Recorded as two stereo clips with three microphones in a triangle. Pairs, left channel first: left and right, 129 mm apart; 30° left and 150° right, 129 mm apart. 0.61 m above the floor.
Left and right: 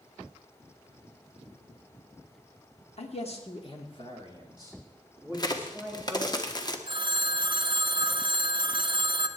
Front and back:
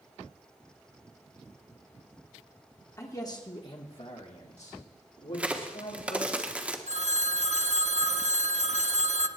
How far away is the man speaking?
About 1.5 m.